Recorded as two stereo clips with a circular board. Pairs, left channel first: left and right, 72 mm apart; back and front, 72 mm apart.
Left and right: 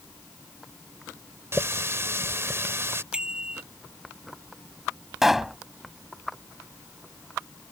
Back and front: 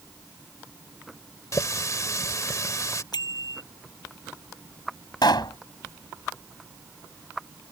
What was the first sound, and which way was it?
A running tap, 140° right.